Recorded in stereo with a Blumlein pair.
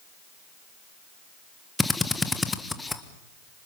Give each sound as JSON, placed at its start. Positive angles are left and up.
{"t": 1.8, "sound": "a drill", "azimuth_deg": 10, "distance_m": 1.5}